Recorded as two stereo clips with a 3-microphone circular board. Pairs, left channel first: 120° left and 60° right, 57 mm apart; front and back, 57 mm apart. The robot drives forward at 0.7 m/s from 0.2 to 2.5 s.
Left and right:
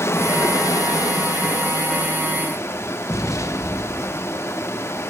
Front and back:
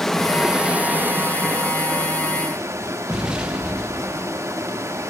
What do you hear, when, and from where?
0.0 s running water: 85° left, 0.7 m; by 5.1 s 155° left, 1.7 m
3.1 s an explosion: 110° left, 0.8 m